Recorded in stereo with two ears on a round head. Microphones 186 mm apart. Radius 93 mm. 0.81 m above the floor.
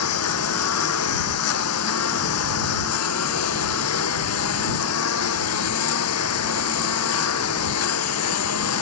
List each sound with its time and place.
0.0 s a lawn mower: 85° left